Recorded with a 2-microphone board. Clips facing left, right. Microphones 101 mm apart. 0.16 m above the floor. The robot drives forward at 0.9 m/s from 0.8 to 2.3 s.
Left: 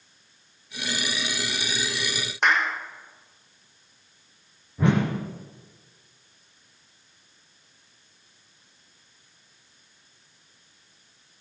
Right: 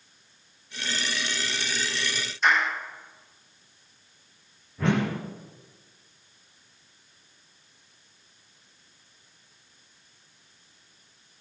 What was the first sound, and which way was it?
A clap, 70° left (ahead or behind).